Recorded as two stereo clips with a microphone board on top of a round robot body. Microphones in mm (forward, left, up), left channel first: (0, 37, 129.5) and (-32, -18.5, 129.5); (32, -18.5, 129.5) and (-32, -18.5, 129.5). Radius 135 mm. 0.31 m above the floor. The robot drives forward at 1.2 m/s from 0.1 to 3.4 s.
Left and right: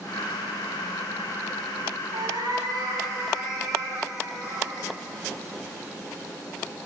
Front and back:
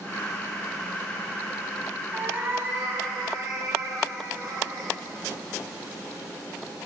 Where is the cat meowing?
115° right, 2.5 m; by 4.9 s 140° right, 3.5 m.